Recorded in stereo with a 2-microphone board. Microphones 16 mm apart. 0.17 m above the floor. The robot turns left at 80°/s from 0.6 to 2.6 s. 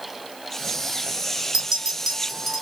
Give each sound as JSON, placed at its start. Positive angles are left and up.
{"t": 1.5, "sound": "a clink", "side_deg": -35, "distance_m": 1.1}